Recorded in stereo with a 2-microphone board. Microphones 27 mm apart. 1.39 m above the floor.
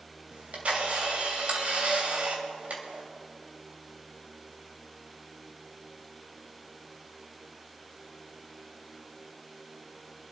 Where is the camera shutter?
55° right (ahead or behind), 3 m.